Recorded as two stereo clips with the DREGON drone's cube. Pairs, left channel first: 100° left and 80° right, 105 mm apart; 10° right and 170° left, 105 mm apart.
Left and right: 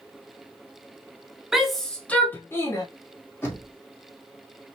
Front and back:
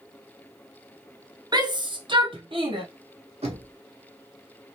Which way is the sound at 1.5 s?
165° right.